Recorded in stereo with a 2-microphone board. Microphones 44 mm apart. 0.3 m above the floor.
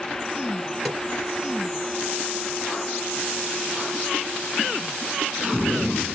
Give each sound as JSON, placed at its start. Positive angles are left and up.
{"t": 0.8, "sound": "a snare drum", "side_deg": 5, "distance_m": 3.5}